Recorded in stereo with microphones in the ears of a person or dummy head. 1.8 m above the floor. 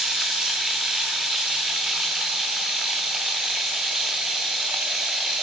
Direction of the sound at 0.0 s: Centre (ahead or behind).